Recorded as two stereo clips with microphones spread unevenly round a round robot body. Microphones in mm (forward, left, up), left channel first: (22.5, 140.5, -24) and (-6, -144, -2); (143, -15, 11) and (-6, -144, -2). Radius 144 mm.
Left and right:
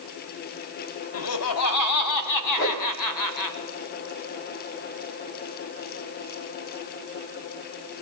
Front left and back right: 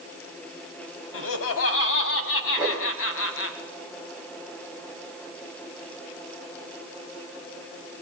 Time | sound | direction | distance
1.1 | laughter | 50° left | 3 m
2.6 | a whoosh | 135° left | 8 m